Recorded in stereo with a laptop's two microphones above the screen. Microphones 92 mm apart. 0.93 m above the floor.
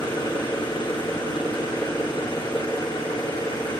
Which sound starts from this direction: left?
An engine running, at 0.0 s.